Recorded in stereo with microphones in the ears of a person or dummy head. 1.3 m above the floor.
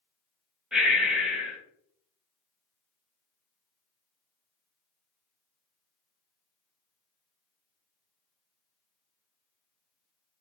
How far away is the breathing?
About 0.7 m.